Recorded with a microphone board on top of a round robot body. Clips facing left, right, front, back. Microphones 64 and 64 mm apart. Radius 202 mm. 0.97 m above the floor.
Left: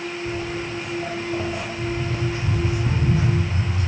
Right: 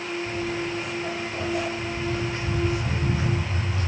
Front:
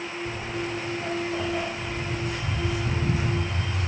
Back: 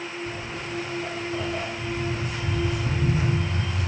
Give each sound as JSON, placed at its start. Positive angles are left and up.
{"t": 0.2, "sound": "footsteps", "azimuth_deg": 70, "distance_m": 3.0}